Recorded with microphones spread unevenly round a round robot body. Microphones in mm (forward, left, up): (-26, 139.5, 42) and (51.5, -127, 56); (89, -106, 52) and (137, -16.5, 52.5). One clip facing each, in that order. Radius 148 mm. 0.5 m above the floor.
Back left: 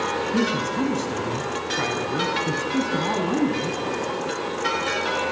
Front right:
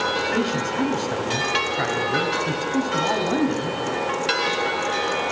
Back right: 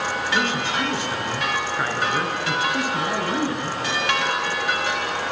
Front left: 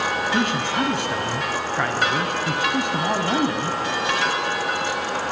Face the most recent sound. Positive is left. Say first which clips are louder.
# back left 1 dB, even
turn(degrees=45)